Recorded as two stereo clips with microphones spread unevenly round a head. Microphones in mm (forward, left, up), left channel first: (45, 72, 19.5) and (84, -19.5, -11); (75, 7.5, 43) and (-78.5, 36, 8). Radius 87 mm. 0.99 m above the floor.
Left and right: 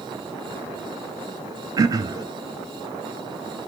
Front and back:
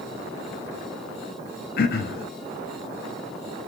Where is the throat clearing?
5° right, 0.6 m.